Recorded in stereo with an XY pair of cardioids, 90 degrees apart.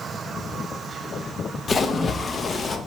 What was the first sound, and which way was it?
A splash, 40° left.